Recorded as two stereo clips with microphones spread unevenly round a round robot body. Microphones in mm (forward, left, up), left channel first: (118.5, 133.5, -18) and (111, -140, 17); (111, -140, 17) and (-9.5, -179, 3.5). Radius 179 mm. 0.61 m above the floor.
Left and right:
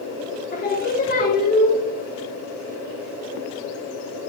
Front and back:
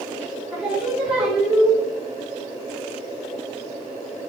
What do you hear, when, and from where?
0.5 s singing: 120° left, 1.1 m